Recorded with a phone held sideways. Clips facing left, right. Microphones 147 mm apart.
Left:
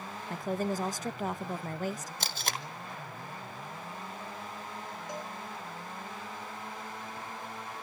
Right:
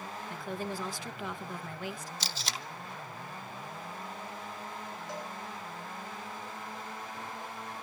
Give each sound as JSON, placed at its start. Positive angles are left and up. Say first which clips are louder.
{"t": 0.3, "sound": "a woman speaking", "louder": "left 6 dB", "side_deg": 40, "distance_m": 0.6}
{"t": 2.2, "sound": "tape being pulled", "louder": "left 3 dB", "side_deg": 55, "distance_m": 0.9}
{"t": 5.1, "sound": "a cowbell", "louder": "left 1 dB", "side_deg": 20, "distance_m": 6.0}